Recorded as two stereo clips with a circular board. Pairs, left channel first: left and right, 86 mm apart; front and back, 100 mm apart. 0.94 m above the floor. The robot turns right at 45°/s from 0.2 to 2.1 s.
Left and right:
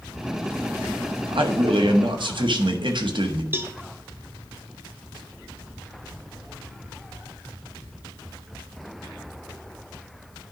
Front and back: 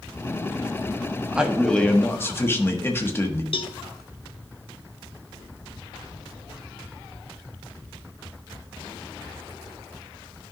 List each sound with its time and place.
1.3 s a man speaking: 100° right, 1.1 m; by 3.4 s 65° right, 1.1 m
3.5 s a cowbell: 25° right, 0.6 m